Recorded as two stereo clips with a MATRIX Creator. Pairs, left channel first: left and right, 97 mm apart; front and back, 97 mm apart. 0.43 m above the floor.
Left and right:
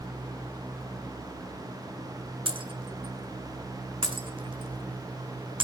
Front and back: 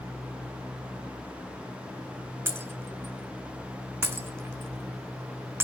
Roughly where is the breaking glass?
Behind right.